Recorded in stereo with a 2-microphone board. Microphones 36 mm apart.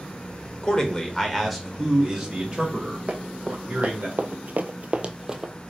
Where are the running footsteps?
35° right (ahead or behind), 1.3 m; by 5.5 s 15° right (ahead or behind), 0.8 m.